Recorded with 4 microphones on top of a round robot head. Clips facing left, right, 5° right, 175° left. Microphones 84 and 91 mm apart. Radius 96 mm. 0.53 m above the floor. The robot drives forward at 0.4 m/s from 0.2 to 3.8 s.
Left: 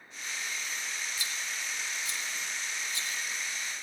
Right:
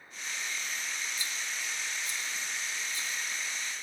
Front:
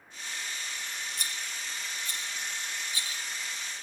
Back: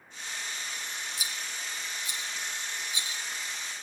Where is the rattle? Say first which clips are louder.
Even, even; 90° left, 2.5 m; by 3.2 s 110° left, 2.5 m.